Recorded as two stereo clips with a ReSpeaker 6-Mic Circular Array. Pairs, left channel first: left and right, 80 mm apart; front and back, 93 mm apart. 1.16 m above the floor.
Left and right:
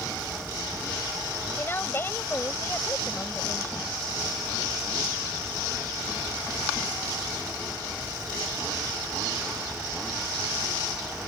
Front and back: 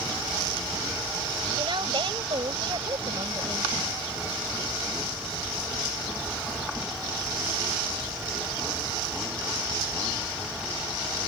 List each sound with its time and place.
1.6 s a woman speaking: 150° left